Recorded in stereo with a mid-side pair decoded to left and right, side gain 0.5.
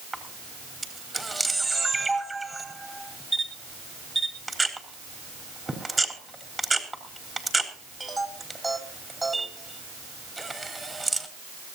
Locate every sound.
0.1 s a camera shutter: 15° right, 4 m